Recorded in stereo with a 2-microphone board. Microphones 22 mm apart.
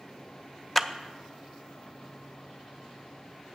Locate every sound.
0.8 s a clap: 10° left (ahead or behind), 0.5 m